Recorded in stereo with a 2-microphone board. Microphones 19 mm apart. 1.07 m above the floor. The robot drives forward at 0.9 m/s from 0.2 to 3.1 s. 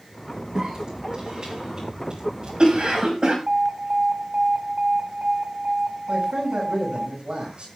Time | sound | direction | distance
0.6 | a cough | 30° right (ahead or behind) | 8 m
3.5 | an alarm | 80° right | 4.5 m
6.1 | a man speaking | 65° right (ahead or behind) | 7 m